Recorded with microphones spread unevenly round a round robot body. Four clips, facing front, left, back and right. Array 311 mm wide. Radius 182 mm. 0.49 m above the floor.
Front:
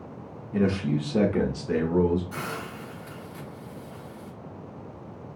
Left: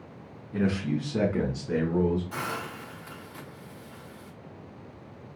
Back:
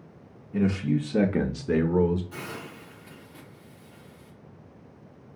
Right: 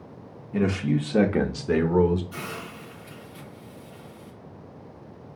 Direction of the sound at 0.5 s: 55° right.